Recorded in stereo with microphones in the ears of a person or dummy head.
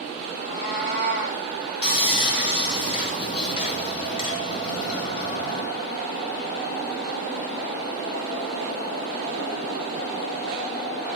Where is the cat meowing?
45° left (ahead or behind), 1.7 m.